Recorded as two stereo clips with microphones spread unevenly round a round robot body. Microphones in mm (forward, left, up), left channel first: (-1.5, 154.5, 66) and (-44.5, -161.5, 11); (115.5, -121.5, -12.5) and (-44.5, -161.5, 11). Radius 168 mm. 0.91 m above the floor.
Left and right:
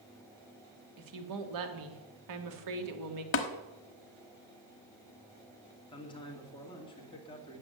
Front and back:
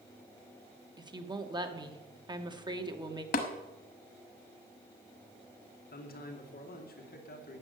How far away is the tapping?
About 1.0 m.